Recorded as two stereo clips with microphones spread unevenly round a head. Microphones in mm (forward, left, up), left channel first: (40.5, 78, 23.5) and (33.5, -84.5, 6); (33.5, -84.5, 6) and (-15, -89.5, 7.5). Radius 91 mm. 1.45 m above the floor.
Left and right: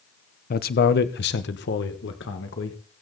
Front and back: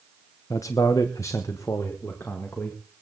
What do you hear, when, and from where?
0.5 s a man speaking: 55° left, 0.8 m; by 2.8 s 85° left, 1.9 m